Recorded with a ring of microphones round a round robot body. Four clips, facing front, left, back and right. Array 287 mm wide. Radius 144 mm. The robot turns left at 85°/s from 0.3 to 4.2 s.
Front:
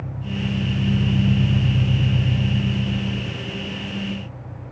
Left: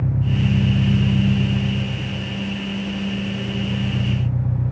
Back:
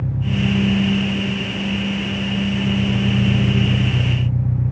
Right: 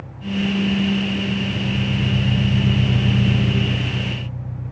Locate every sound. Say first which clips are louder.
0.0 s an engine running: left 1 dB, back 6 dB; 125° left; by 4.7 s 150° left